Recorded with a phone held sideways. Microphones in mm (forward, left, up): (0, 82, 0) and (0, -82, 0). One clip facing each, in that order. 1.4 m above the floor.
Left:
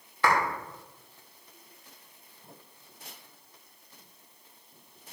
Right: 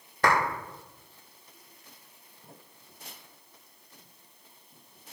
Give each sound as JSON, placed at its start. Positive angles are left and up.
{"t": 0.2, "sound": "a clap", "side_deg": -45, "distance_m": 4.0}